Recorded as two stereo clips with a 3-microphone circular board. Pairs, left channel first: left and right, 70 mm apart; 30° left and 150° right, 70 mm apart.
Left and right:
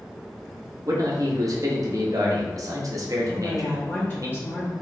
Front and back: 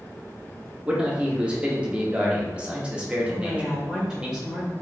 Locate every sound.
0.9 s a man speaking: 80° right, 0.8 m
3.3 s a woman speaking: 130° left, 0.9 m